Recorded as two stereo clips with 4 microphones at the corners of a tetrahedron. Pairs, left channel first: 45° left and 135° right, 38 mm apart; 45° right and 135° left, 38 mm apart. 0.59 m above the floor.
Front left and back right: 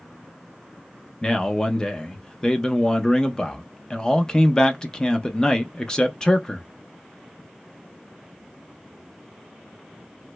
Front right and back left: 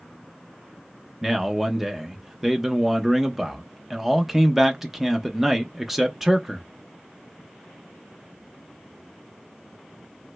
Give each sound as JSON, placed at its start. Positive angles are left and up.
{"t": 1.2, "sound": "a man speaking", "azimuth_deg": 75, "distance_m": 0.6}